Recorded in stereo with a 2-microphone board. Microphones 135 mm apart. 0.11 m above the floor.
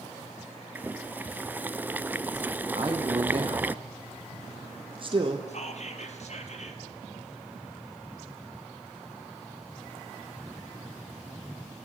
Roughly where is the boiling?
Centre.